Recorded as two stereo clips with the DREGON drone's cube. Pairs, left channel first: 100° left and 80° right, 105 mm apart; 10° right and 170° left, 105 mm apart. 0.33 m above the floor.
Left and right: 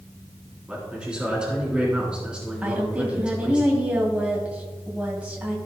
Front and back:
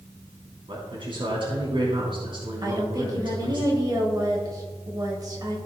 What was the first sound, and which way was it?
A man speaking, 160° right.